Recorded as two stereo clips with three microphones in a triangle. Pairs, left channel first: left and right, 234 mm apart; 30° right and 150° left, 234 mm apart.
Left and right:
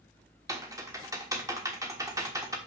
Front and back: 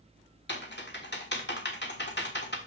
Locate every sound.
0.5 s typing on a keyboard: 15° right, 1.3 m